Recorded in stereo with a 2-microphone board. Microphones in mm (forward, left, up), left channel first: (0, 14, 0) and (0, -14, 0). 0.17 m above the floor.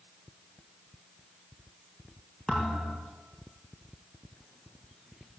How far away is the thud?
About 5.5 m.